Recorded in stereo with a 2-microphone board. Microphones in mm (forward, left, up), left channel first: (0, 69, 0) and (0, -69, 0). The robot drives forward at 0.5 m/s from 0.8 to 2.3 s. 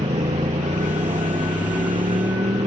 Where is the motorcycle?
55° right (ahead or behind); by 2.7 s 50° right (ahead or behind).